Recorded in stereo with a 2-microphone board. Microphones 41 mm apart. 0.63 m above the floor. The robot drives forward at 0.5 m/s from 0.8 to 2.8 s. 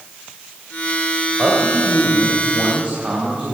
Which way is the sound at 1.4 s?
45° right (ahead or behind).